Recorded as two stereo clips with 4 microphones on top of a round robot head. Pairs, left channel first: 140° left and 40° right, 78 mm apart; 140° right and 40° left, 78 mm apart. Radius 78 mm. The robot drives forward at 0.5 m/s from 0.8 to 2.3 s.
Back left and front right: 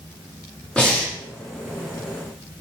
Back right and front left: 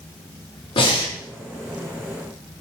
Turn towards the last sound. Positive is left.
turn(degrees=-155)